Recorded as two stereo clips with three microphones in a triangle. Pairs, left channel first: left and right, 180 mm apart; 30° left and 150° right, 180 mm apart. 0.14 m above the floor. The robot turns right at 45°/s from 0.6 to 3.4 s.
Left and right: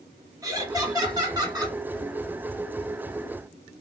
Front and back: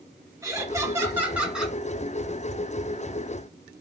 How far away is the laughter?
About 1.4 m.